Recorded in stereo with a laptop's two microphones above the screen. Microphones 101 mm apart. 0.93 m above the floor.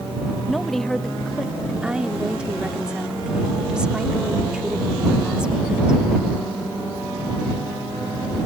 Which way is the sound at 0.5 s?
Centre (ahead or behind).